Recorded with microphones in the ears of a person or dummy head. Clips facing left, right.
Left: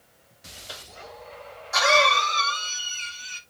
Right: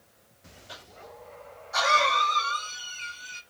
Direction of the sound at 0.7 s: 80° left.